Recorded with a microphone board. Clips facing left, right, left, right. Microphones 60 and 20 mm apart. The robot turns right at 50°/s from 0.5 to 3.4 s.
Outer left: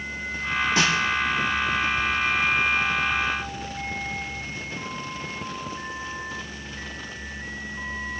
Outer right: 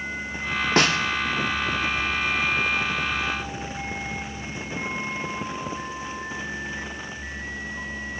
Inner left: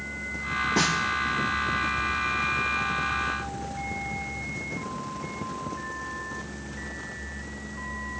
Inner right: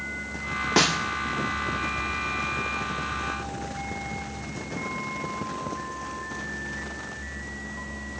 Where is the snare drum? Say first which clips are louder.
Outer right 3 dB, inner right 4 dB; 55° right (ahead or behind), 1.0 m; by 1.0 s 65° right (ahead or behind), 1.0 m.